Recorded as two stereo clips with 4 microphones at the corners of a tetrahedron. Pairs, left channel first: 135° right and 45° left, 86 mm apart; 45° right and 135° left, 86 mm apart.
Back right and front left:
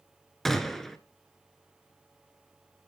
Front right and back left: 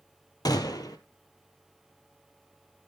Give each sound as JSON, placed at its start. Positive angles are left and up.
{"t": 0.5, "sound": "a gunshot", "azimuth_deg": -50, "distance_m": 1.8}